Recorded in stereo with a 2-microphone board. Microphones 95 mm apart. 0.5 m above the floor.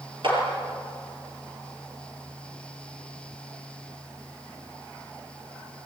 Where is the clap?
60° right (ahead or behind), 8.5 m.